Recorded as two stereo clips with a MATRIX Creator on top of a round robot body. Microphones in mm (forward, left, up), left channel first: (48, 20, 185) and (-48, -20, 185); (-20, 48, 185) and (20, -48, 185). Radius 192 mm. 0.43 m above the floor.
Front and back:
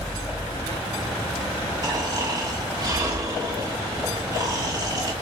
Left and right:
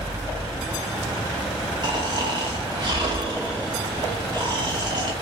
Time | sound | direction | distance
1.8 | snoring | 110° right | 1.5 m